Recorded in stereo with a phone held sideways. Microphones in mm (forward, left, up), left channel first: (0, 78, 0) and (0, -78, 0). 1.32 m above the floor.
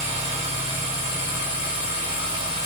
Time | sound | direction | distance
0.0 | a machine running | 35° right (ahead or behind) | 2 m